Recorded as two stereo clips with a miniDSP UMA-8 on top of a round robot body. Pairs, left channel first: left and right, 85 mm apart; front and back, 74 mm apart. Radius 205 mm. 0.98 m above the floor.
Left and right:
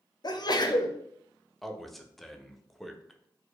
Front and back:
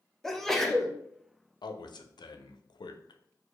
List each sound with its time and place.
0.2 s a sneeze: 85° left, 0.9 m
1.6 s a man speaking: straight ahead, 0.6 m